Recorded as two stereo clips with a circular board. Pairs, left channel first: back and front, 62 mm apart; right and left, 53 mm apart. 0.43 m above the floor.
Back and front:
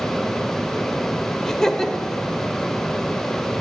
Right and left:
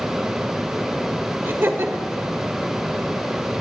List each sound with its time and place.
1.4 s laughter: 100° left, 1.4 m